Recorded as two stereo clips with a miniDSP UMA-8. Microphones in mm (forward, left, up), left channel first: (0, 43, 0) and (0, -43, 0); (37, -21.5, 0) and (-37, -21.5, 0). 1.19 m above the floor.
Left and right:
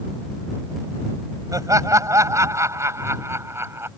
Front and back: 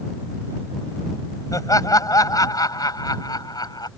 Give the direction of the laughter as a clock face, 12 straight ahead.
1 o'clock.